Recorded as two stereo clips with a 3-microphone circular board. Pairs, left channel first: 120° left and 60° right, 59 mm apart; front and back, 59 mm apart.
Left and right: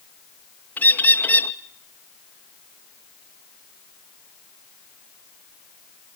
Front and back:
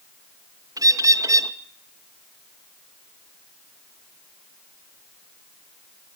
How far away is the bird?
About 1.4 m.